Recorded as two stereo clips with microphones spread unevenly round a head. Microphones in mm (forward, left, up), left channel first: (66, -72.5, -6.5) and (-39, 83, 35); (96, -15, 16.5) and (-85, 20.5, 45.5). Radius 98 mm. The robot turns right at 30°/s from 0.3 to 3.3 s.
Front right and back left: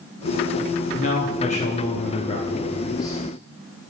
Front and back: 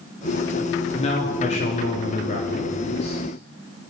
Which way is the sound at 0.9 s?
45° right.